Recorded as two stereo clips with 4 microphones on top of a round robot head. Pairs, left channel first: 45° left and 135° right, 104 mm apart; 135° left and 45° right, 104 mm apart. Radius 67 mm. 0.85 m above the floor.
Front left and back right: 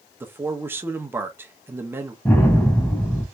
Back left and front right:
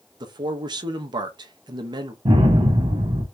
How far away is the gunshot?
About 1.5 m.